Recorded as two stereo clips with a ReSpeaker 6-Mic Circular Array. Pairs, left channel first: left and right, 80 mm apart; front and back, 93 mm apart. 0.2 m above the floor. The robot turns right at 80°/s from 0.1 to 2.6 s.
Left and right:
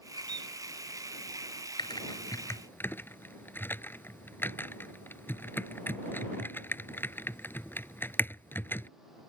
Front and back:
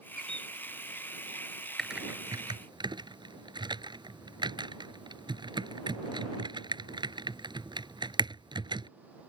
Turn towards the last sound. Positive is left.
turn(degrees=150)